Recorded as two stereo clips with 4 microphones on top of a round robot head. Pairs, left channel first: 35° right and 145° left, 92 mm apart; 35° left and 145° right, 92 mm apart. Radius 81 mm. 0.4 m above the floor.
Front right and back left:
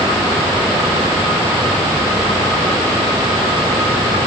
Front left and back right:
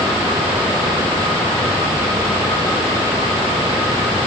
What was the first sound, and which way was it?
Only background noise.